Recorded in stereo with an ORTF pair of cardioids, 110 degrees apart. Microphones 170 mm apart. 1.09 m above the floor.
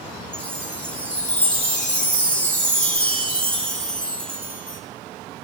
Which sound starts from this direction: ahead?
A chime, at 0.3 s.